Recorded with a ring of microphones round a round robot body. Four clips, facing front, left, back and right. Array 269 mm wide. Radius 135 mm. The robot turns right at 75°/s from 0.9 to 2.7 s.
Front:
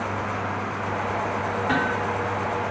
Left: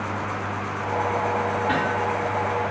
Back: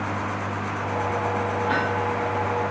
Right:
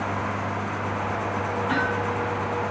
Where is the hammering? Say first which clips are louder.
Left 2 dB, front 2 dB; 35° left, 8.5 m; by 2.1 s 65° left, 8.5 m.